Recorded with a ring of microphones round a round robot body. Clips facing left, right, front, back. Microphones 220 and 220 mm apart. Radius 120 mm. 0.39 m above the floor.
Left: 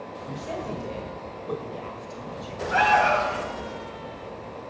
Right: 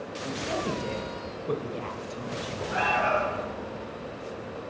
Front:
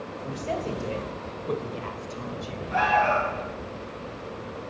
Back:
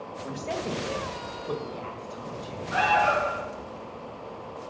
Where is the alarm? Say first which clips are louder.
Left 5 dB, front 1 dB; 100° left, 2.5 m.